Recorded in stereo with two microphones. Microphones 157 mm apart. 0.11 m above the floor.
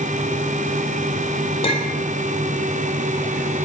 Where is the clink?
40° left (ahead or behind), 2.5 m.